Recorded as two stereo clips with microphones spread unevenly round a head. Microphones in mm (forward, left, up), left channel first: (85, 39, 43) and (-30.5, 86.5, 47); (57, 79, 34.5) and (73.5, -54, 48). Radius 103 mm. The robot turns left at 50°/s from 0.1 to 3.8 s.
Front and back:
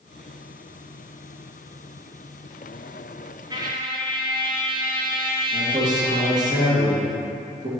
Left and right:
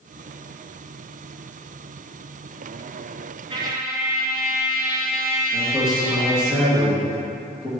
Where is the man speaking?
170° right, 1.5 m.